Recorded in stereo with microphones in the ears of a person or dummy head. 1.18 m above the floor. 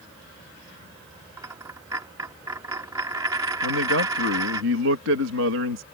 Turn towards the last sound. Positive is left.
turn(degrees=-70)  # may be behind; listen again after turning